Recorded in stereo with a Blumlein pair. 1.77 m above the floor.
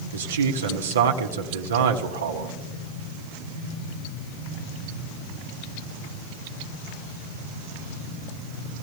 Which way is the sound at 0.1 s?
70° right.